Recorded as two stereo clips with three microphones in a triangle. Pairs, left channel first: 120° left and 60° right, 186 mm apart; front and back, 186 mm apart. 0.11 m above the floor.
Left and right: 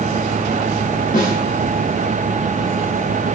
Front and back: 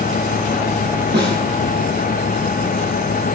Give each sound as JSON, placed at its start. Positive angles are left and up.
{"t": 1.1, "sound": "a snare drum", "azimuth_deg": 155, "distance_m": 3.5}